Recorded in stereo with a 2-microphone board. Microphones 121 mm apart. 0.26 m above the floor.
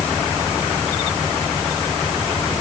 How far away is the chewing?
No chewing in this recording.